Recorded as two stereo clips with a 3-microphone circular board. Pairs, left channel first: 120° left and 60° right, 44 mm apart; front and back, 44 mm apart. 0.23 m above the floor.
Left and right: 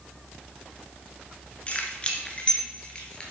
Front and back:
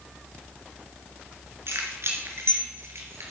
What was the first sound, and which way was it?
Keys jangling, straight behind.